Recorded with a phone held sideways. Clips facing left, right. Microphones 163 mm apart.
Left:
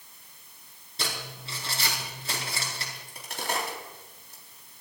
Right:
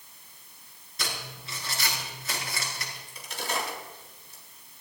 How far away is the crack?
About 5 m.